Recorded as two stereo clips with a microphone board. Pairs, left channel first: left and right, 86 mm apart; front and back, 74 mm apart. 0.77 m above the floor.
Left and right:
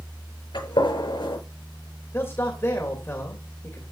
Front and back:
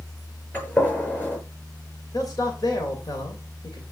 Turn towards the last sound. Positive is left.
turn(degrees=30)